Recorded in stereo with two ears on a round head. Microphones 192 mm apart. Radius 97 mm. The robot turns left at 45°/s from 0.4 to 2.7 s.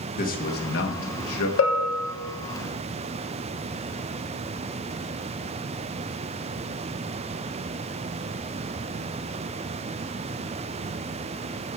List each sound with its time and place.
0.2 s a man speaking: 135° left, 1.5 m; by 1.5 s 90° left, 1.5 m
1.6 s a bell: 60° left (ahead or behind), 1.2 m; by 2.1 s 40° left (ahead or behind), 1.2 m